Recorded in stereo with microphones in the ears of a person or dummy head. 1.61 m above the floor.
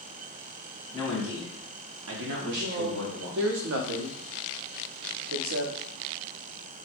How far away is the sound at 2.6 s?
About 0.7 m.